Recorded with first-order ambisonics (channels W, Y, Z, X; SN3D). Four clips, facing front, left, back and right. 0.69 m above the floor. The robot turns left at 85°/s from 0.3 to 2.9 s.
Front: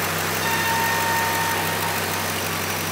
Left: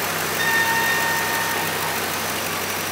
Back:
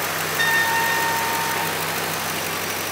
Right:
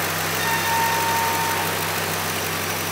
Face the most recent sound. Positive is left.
turn(degrees=-50)